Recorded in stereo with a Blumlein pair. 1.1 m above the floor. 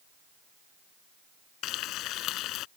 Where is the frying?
35° left.